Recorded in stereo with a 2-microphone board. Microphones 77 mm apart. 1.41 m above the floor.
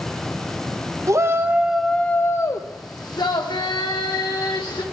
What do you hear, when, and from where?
1.1 s a shout: 40° right (ahead or behind), 0.7 m; by 4.8 s 75° left (ahead or behind), 1.9 m